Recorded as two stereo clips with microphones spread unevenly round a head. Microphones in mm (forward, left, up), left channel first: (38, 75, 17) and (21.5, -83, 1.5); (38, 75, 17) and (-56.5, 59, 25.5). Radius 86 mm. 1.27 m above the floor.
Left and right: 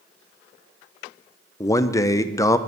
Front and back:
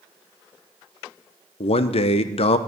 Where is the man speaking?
10° left, 0.8 m.